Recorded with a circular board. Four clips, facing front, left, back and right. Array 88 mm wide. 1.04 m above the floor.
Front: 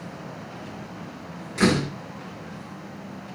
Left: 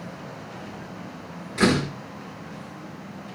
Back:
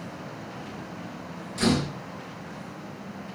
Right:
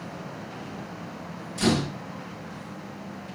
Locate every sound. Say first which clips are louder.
1.6 s a door slam: left 3 dB, front 3 dB; 50° left, 7.5 m